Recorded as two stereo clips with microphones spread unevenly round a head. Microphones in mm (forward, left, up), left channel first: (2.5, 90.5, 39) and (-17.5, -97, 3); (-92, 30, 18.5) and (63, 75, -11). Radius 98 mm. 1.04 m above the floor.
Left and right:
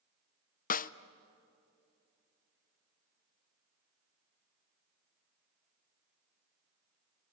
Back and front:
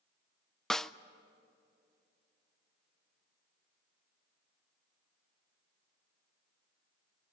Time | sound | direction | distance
0.7 | a snare drum | 95° left | 0.6 m